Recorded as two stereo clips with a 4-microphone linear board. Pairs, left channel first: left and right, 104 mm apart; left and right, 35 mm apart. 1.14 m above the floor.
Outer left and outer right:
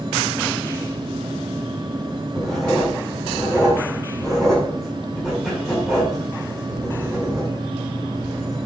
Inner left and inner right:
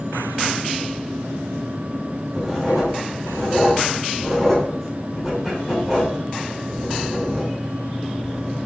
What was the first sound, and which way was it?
Writing, centre (ahead or behind).